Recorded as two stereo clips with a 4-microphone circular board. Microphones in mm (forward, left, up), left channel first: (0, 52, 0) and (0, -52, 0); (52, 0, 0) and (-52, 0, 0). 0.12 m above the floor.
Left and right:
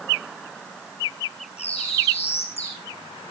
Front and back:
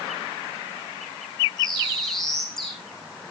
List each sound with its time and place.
1.6 s a bird: 85° left, 6.5 m